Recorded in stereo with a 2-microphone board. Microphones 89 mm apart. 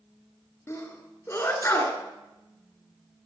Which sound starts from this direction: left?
A sneeze, at 0.7 s.